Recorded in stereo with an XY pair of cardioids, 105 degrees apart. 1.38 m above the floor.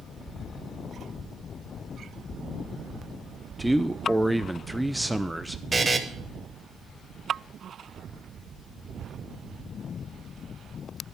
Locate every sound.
3.6 s a man speaking: 5° right, 0.5 m
5.7 s a buzzer: 20° right, 1.1 m